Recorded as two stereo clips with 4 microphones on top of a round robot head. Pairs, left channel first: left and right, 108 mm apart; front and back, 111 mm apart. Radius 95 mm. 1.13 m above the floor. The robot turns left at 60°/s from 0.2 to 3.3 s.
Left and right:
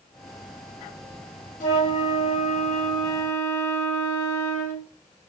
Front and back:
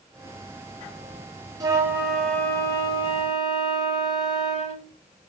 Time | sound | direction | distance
1.6 | a flute | 125° left | 0.6 m